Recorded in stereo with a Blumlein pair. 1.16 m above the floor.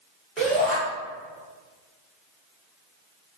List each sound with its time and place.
0.4 s a shout: 15° right, 1.4 m